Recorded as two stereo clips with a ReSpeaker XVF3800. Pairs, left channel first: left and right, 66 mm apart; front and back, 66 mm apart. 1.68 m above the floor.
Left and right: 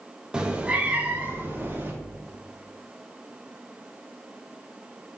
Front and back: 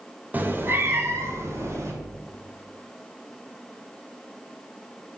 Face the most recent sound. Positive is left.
turn(degrees=-150)